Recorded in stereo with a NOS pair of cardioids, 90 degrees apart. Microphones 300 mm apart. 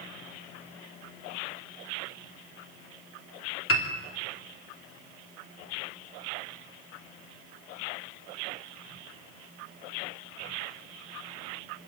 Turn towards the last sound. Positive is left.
turn(degrees=45)